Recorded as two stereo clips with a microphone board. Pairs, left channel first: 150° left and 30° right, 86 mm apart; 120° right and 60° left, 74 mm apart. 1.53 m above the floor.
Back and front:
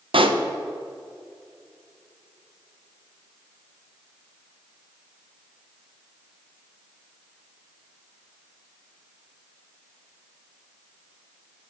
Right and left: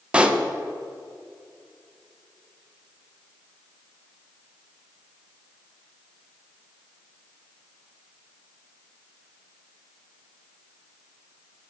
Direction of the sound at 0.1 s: 15° right.